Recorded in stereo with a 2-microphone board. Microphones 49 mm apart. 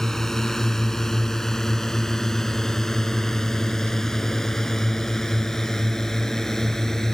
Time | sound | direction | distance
0.0 | a drone | 10° left (ahead or behind) | ?